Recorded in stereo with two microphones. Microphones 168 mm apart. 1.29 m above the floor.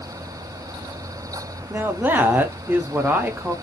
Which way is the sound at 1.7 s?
10° right (ahead or behind).